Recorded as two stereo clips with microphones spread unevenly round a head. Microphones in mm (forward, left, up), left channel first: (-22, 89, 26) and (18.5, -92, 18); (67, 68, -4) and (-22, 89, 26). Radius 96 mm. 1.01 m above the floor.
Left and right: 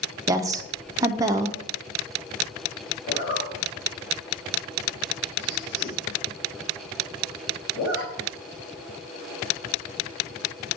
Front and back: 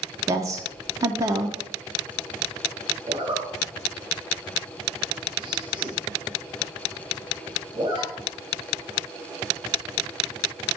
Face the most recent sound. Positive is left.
turn(degrees=135)